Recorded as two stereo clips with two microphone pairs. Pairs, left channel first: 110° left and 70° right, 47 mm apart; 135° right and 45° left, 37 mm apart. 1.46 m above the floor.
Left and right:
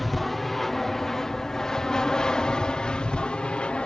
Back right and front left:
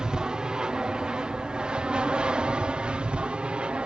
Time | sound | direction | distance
0.0 | an aircraft | 25° left | ?